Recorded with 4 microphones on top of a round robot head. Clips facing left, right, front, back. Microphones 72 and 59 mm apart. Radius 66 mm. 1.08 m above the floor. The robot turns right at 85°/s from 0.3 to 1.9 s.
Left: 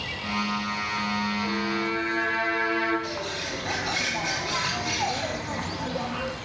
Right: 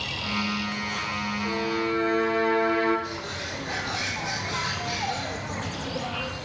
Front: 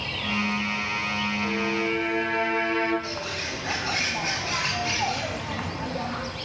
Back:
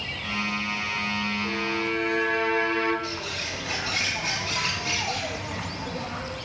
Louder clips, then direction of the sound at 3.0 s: Left 2 dB, front 1 dB; 60° left.